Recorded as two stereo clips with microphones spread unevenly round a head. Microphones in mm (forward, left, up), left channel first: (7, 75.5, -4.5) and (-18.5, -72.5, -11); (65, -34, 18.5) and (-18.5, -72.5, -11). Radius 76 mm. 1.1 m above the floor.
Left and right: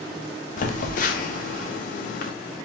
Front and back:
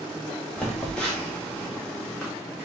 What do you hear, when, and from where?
0.6 s a phone buzzing: 115° left, 0.6 m